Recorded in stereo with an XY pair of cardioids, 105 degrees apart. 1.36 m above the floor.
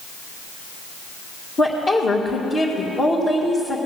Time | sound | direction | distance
1.6 | a woman speaking | 40° left | 2.5 m